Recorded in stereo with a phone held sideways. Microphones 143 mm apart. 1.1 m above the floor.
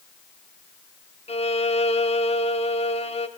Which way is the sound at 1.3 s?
45° left (ahead or behind).